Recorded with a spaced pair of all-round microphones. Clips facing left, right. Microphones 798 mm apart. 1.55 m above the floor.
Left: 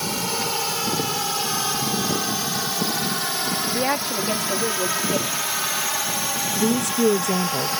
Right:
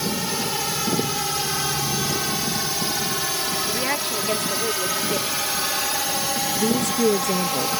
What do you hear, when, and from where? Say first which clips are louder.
0.0 s a drone: right 2 dB; 55° right (ahead or behind); by 7.8 s 65° right (ahead or behind)
3.7 s a woman speaking: left 4 dB; 80° left
6.5 s a woman speaking: left 1 dB; 30° left (ahead or behind)